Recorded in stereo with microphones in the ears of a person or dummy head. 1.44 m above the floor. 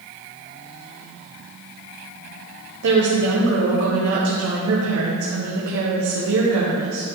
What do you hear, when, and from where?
2.8 s a woman speaking: 75° right (ahead or behind), 1.0 m